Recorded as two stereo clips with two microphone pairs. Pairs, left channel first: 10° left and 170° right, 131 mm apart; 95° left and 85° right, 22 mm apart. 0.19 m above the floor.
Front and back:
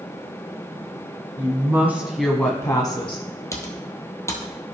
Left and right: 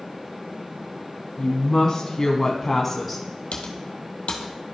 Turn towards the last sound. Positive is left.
turn(degrees=80)